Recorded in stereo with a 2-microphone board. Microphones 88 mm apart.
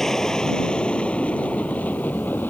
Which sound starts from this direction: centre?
An aircraft, at 0.0 s.